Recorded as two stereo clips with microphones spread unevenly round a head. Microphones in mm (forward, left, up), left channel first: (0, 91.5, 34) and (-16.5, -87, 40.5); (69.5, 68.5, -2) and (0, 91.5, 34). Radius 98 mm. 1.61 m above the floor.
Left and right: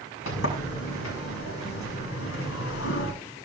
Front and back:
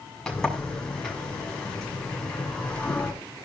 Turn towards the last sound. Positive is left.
turn(degrees=70)